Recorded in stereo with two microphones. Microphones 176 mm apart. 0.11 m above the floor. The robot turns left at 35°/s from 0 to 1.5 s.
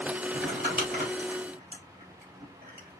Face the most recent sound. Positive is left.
turn(degrees=-60)  # may be behind; listen again after turning